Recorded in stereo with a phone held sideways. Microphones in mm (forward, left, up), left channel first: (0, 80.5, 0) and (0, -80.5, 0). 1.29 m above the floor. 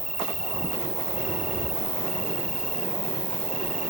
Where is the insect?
55° right (ahead or behind).